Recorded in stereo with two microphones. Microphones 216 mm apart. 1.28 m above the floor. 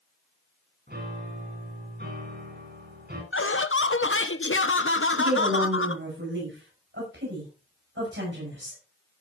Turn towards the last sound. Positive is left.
turn(degrees=-60)  # may be behind; listen again after turning